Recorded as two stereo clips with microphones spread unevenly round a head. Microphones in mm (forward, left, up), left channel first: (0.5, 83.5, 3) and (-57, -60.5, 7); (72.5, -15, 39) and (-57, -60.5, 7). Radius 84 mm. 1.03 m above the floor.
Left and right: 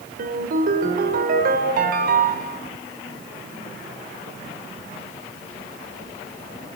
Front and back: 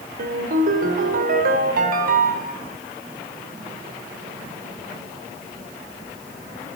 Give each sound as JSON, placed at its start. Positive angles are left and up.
{"t": 0.2, "sound": "a ringtone", "azimuth_deg": -145, "distance_m": 3.0}